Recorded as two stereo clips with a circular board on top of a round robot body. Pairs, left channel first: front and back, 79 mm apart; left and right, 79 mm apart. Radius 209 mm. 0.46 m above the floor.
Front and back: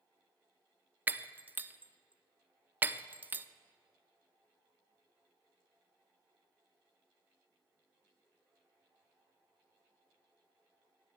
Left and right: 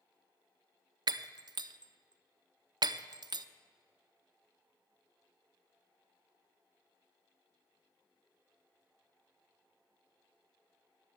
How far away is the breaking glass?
About 0.6 m.